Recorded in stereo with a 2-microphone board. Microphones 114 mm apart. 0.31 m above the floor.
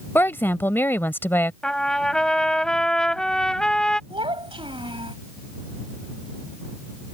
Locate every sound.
0.1 s a woman speaking: 20° left (ahead or behind)
1.6 s a trumpet: 5° left (ahead or behind)
4.1 s a child speaking: 50° right (ahead or behind)